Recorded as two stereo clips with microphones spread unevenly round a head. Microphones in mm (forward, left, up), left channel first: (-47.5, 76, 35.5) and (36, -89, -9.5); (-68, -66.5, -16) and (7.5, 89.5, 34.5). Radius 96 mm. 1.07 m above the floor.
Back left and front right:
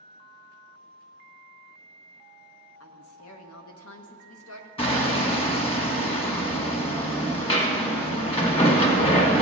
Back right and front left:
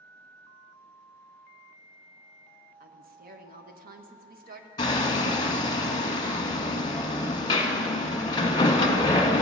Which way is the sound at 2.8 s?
110° left.